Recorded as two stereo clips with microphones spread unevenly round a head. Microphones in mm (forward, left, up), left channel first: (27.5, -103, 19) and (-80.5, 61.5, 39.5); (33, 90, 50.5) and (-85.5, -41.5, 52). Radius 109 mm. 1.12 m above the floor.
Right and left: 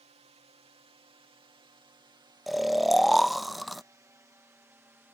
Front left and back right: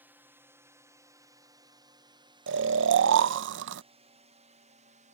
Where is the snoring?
150° right.